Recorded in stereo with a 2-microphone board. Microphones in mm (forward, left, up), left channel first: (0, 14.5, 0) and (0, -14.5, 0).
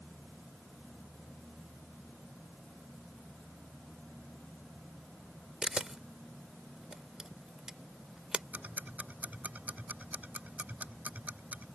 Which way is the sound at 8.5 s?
85° right.